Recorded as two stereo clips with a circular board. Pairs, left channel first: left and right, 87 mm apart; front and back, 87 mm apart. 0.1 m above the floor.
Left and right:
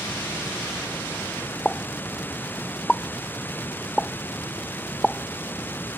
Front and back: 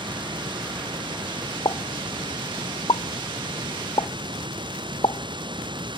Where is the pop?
10° left.